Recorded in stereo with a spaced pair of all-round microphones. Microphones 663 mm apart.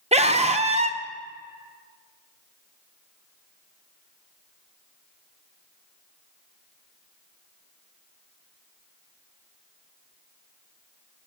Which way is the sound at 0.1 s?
10° right (ahead or behind).